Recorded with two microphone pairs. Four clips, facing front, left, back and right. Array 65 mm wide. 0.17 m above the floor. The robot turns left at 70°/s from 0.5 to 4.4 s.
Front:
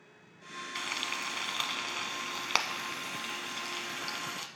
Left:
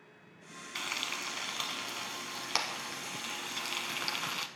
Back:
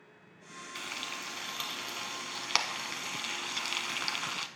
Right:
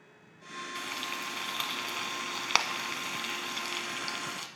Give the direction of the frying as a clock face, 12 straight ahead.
11 o'clock.